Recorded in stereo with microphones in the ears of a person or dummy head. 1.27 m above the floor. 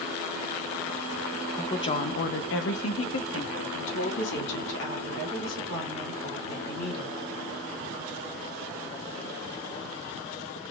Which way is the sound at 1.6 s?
15° left (ahead or behind).